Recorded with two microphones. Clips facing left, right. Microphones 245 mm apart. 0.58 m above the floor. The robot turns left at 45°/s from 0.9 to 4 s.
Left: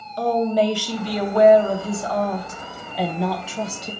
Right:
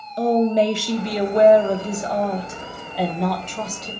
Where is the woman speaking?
20° right (ahead or behind), 0.7 m; by 3.9 s 15° left (ahead or behind), 0.7 m.